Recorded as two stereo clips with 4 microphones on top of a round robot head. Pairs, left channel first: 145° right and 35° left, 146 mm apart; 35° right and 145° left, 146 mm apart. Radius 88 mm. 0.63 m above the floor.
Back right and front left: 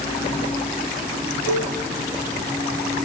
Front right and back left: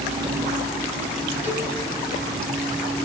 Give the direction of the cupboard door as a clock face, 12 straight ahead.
I don't hear a cupboard door.